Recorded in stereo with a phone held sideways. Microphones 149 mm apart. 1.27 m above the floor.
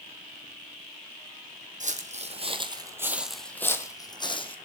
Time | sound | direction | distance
1.8 | footsteps | 55° right (ahead or behind) | 2 m